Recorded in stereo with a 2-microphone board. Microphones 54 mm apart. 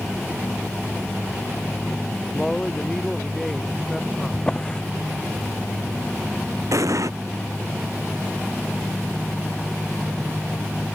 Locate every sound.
2.3 s a man speaking: 5° left (ahead or behind); by 4.4 s centre (ahead or behind)
4.3 s a drawer: 15° left (ahead or behind)
6.7 s an explosion: 75° right (ahead or behind)